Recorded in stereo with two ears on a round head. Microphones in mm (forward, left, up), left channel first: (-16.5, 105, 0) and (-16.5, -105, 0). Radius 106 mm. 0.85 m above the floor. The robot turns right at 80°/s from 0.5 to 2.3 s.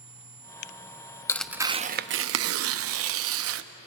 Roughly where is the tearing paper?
Behind.